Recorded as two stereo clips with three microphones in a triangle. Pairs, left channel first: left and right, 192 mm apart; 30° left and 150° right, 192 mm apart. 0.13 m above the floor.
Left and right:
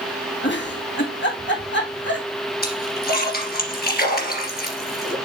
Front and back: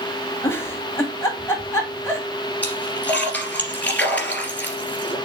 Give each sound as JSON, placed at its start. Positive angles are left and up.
{"t": 0.4, "sound": "a giggle", "azimuth_deg": 105, "distance_m": 1.8}
{"t": 2.6, "sound": "a splash", "azimuth_deg": 110, "distance_m": 2.5}